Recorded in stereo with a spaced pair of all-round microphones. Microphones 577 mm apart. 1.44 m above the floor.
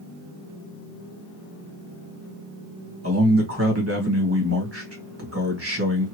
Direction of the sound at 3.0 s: 25° right (ahead or behind).